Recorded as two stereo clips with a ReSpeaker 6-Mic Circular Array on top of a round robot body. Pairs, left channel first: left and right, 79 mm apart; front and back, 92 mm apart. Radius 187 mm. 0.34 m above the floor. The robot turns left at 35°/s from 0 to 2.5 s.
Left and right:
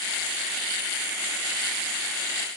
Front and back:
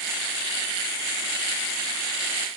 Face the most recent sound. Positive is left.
No sound to turn to.